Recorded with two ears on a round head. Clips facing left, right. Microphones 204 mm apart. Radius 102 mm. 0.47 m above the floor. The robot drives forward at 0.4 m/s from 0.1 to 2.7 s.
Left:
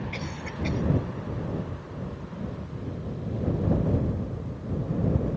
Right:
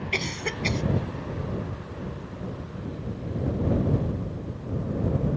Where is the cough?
75° right (ahead or behind).